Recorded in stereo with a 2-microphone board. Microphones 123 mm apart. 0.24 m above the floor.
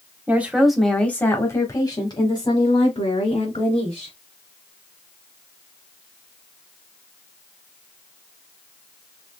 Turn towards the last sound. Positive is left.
turn(degrees=60)  # may be behind; listen again after turning